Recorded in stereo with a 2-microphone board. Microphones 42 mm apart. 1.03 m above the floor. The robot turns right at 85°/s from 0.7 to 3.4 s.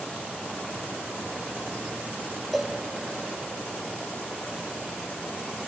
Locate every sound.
2.5 s a cowbell: 5° left (ahead or behind), 0.5 m; by 2.8 s 5° right (ahead or behind), 0.5 m